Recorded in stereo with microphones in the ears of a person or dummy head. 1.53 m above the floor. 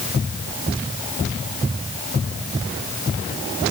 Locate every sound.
Only background noise.